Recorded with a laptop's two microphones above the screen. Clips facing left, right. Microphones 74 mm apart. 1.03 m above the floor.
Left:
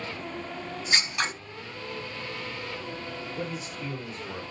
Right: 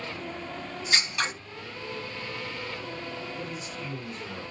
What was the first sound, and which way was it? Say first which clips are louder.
Scissors: even; 15° left (ahead or behind).